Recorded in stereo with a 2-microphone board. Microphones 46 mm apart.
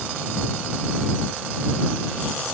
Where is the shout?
I don't hear a shout.